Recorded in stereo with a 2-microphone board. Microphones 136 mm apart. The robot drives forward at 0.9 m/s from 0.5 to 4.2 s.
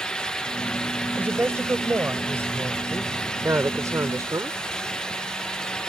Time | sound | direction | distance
1.2 | a woman speaking | 15° right (ahead or behind) | ?